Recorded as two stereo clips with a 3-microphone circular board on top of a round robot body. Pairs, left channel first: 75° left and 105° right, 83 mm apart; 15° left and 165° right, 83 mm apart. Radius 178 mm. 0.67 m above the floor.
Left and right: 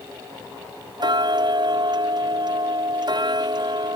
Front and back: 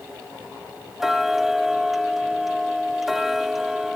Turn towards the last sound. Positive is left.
turn(degrees=-80)